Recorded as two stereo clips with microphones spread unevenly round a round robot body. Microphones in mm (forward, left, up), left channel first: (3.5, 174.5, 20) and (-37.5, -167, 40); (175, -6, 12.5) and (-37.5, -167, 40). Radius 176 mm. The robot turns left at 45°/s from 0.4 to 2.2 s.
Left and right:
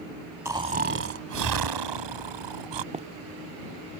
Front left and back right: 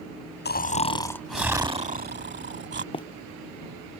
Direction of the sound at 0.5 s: 15° right.